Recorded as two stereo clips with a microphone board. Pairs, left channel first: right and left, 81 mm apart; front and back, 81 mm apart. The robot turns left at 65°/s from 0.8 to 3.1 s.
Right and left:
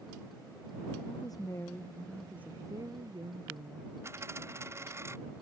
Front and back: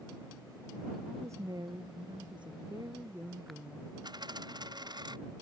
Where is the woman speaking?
110° right; by 3.9 s 115° left.